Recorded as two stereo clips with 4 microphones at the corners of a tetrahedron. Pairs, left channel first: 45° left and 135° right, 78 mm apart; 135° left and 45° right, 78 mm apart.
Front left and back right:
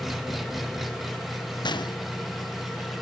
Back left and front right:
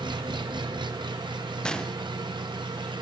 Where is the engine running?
45° right, 1.2 m.